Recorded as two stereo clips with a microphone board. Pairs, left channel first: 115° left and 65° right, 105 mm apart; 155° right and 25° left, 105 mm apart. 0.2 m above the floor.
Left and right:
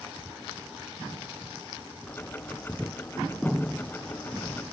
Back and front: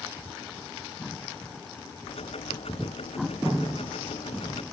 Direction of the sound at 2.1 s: 175° right.